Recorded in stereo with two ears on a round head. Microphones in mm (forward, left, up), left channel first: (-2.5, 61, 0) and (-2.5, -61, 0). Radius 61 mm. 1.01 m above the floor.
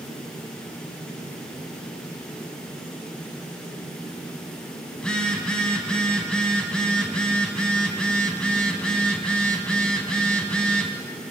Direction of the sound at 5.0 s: 5° left (ahead or behind).